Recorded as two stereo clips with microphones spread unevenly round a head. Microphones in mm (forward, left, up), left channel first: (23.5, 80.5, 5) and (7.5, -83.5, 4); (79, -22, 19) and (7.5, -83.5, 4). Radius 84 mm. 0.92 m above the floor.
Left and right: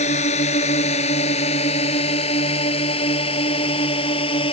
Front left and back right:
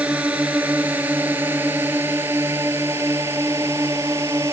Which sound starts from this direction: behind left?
A drone, at 0.0 s.